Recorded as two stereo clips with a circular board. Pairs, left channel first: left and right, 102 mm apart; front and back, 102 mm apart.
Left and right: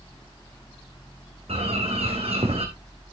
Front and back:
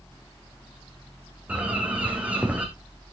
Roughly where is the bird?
Right.